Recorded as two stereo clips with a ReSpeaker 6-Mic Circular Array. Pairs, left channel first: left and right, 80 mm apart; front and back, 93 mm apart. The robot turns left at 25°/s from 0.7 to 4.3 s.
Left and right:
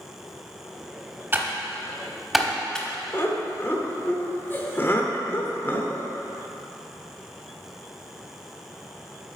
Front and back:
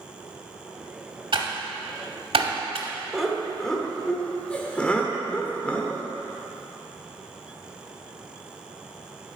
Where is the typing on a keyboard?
150° right, 0.9 m; by 2.9 s 170° left, 0.9 m.